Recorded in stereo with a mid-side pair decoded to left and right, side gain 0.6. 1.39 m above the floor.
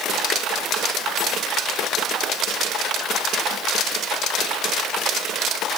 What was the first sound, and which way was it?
Only background noise.